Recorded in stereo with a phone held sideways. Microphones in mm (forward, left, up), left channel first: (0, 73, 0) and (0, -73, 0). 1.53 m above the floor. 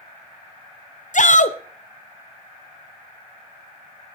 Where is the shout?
60° left (ahead or behind), 0.8 m.